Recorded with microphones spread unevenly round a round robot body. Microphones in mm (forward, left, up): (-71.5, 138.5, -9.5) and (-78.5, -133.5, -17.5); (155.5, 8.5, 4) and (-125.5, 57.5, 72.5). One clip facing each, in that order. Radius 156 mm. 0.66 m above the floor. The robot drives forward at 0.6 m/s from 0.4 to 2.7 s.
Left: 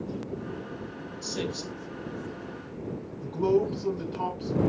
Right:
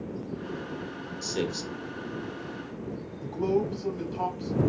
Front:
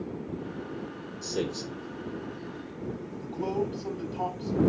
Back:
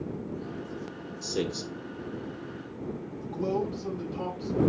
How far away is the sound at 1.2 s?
About 2 m.